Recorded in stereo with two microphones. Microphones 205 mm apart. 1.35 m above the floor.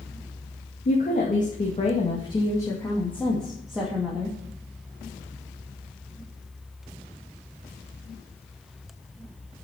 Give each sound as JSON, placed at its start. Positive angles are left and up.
{"t": 0.8, "sound": "a woman speaking", "side_deg": 45, "distance_m": 2.5}